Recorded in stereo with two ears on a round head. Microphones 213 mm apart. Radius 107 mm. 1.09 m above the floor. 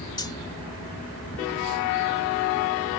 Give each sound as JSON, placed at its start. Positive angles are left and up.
{"t": 0.2, "sound": "cutlery clinking", "side_deg": 20}